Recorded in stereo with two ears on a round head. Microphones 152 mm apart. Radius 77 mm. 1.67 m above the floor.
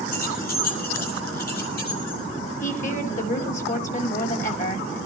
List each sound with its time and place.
0.1 s keys jangling: 55° left (ahead or behind), 7.5 m; by 2.2 s 65° left (ahead or behind), 9.5 m
2.6 s a woman speaking: 50° left (ahead or behind), 5 m